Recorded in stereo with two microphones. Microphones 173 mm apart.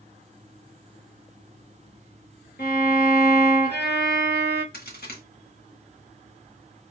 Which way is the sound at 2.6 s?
70° left (ahead or behind).